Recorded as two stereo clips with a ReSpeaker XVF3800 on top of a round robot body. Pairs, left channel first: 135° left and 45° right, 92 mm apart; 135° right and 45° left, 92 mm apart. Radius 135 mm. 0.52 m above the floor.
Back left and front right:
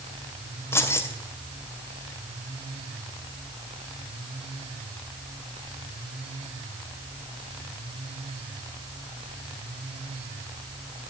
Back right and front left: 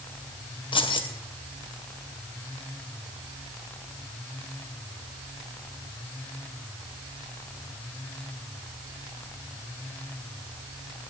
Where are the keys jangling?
160° right, 2.5 m.